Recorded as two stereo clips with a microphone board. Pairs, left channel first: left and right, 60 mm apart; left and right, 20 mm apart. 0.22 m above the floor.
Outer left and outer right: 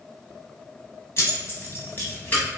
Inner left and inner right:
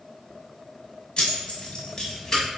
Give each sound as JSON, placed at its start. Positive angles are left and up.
{"t": 1.2, "sound": "keys jangling", "side_deg": 45, "distance_m": 0.9}